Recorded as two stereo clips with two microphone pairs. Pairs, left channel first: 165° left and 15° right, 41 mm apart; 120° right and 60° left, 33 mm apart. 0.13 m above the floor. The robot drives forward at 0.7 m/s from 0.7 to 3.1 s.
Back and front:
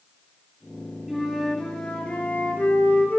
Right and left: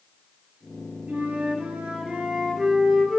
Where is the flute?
65° left, 1.3 m; by 3.2 s 135° left, 1.6 m.